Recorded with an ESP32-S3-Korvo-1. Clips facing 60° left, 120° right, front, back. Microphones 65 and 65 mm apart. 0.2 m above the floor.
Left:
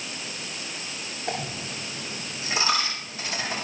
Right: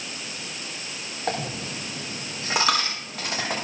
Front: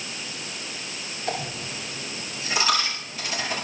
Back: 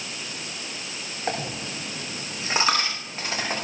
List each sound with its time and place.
1.3 s a dropped coin: 135° right, 6.5 m